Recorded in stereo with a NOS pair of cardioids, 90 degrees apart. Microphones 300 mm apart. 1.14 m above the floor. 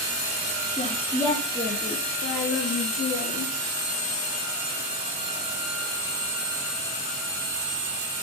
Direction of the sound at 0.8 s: 10° left.